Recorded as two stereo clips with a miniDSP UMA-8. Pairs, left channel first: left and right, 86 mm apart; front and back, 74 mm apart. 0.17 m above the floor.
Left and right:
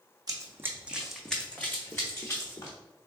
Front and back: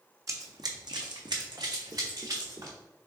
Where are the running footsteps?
135° right, 0.6 m; by 2.8 s 140° left, 1.3 m.